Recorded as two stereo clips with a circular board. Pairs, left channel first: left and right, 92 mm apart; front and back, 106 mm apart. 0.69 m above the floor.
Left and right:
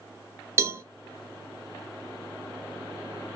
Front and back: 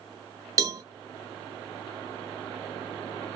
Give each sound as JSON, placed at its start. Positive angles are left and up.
{"t": 0.6, "sound": "a cowbell", "azimuth_deg": -135, "distance_m": 0.7}